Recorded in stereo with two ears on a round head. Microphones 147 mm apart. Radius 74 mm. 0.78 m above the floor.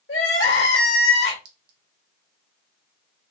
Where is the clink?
80° right, 1.0 m.